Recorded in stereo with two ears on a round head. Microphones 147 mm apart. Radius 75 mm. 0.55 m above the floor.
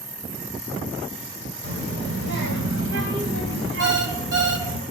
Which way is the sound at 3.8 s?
70° right (ahead or behind).